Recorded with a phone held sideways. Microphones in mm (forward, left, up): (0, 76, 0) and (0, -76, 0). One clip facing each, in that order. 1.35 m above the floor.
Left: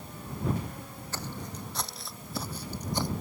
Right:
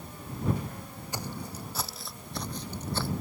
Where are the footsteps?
15° right (ahead or behind); by 3.1 s 20° left (ahead or behind).